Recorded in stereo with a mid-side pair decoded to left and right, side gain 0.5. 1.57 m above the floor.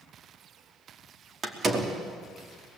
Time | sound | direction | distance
1.4 | a door slam | 40° right | 3 m